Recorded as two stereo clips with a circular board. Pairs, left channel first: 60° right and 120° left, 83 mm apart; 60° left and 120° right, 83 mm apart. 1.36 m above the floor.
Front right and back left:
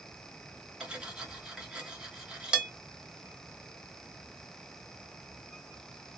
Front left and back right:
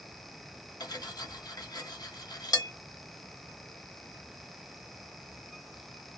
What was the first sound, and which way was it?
Cutlery clinking, 40° left.